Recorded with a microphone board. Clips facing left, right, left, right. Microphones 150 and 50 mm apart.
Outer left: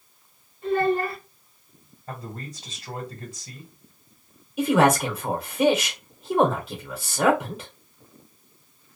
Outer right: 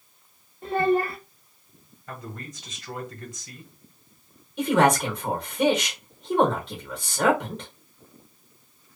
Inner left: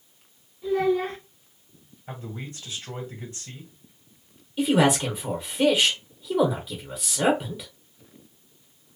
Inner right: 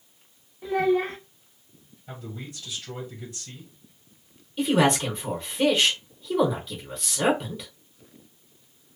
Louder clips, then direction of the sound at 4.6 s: Outer left 1 dB, inner left 1 dB; 5° left (ahead or behind).